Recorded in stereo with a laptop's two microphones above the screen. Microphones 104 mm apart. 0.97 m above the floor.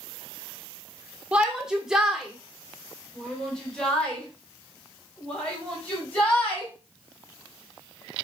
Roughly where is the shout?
Centre.